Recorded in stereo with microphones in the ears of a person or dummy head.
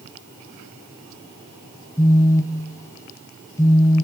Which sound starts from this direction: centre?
A phone buzzing, at 2.0 s.